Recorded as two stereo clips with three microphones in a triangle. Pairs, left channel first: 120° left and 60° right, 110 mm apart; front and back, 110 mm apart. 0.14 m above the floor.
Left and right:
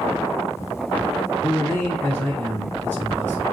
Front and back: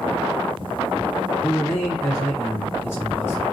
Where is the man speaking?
55° left, 2 m.